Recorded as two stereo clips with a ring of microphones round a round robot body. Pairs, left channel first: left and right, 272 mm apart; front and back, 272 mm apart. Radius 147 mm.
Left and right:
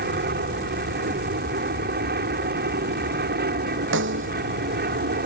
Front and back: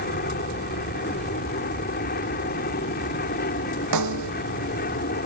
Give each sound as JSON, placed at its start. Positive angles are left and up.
{"t": 0.0, "sound": "an aircraft", "azimuth_deg": -50}
{"t": 3.9, "sound": "a snare drum", "azimuth_deg": -145}